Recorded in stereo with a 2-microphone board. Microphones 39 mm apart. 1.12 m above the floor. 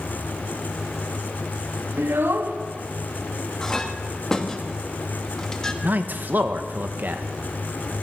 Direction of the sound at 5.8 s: 50° right (ahead or behind).